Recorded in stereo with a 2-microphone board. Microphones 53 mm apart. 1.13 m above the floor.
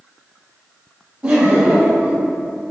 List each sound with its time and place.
1.2 s laughter: 25° right (ahead or behind), 0.5 m